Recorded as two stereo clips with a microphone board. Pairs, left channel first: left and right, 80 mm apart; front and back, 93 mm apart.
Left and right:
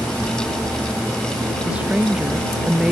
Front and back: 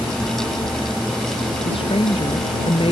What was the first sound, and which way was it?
A woman speaking, 15° right.